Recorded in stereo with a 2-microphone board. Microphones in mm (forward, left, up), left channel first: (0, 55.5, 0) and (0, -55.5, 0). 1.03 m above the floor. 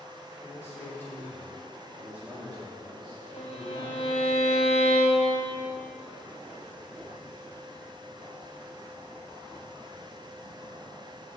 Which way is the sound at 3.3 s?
60° left (ahead or behind).